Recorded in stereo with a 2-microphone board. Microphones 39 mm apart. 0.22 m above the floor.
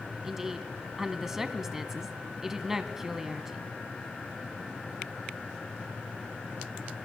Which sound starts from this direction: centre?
A woman speaking, at 0.2 s.